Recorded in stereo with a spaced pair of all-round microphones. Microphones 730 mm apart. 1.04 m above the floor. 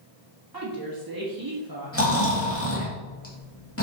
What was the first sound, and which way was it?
A woman speaking, 30° right (ahead or behind).